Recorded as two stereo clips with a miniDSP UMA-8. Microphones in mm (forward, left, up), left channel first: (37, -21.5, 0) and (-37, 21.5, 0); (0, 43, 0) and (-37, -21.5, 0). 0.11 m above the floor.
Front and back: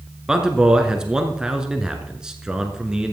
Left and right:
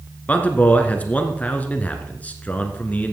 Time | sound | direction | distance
0.3 | a man speaking | 80° left | 1.1 m